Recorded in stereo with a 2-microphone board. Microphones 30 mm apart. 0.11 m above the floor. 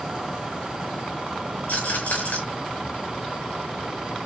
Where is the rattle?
80° left, 4 m.